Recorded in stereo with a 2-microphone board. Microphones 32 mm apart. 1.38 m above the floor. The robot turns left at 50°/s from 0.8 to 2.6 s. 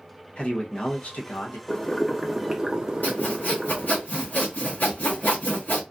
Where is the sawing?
65° left (ahead or behind), 1.4 m.